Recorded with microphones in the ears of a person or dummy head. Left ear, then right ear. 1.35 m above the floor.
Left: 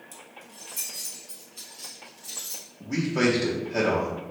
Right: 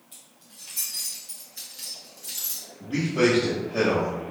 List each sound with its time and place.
0.1 s keys jangling: 50° left (ahead or behind), 0.9 m; by 2.6 s 35° right (ahead or behind), 1.4 m
2.8 s a man speaking: 35° left (ahead or behind), 0.7 m